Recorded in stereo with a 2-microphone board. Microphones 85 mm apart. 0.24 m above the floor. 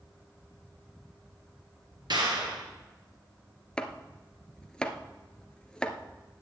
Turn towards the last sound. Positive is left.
turn(degrees=10)  # may be behind; listen again after turning